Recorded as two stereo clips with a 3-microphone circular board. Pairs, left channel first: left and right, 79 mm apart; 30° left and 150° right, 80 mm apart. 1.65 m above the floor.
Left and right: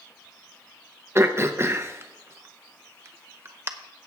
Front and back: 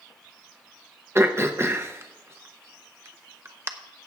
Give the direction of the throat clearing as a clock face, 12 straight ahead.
4 o'clock.